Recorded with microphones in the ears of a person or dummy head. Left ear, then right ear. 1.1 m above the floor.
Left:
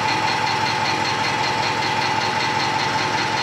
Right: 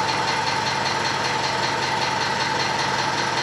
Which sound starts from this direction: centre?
An engine running, at 0.0 s.